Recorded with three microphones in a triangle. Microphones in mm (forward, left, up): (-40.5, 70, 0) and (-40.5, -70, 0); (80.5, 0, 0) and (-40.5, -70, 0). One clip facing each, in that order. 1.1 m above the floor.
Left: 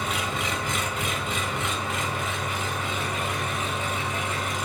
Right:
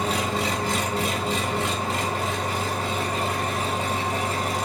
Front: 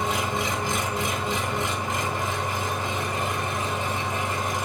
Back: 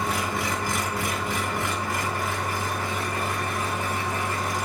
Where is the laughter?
No laughter in this recording.